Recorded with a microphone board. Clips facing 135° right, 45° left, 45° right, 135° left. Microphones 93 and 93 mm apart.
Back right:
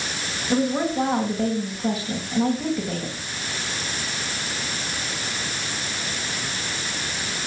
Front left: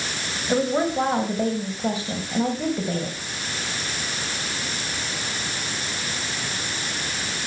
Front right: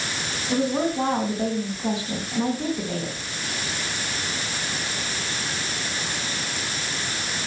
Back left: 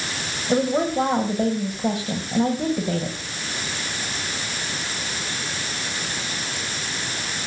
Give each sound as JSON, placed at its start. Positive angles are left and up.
{"t": 0.5, "sound": "a woman speaking", "azimuth_deg": 105, "distance_m": 3.5}